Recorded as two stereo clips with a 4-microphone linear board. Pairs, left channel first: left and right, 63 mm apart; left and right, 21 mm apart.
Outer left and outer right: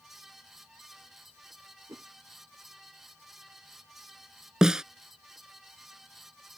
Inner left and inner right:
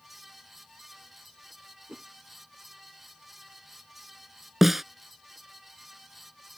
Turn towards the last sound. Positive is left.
turn(degrees=-10)  # may be behind; listen again after turning